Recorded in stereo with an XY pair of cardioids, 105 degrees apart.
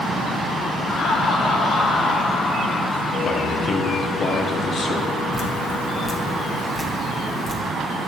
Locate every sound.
0.9 s laughter: 70° left, 2.5 m; by 3.1 s 25° left, 1.3 m
3.2 s a man speaking: 50° left, 1.3 m
5.3 s dripping: 15° left, 1.5 m